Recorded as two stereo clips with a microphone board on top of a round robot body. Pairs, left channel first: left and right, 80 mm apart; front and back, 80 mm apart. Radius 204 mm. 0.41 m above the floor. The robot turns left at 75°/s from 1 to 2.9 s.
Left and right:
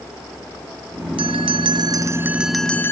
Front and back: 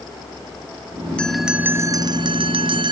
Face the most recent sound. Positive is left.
turn(degrees=155)